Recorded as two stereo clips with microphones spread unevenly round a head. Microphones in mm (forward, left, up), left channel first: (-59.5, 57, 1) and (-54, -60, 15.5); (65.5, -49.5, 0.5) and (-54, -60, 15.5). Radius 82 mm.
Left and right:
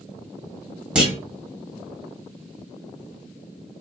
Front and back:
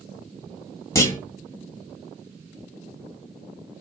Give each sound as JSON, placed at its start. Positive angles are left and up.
{"t": 0.9, "sound": "a clunk", "azimuth_deg": -40, "distance_m": 1.2}